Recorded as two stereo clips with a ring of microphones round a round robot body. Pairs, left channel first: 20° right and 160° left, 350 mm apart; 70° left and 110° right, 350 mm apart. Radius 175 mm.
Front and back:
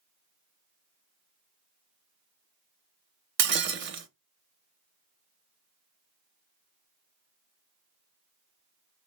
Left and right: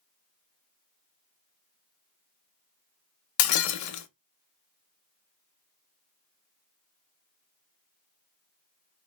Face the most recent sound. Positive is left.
turn(degrees=105)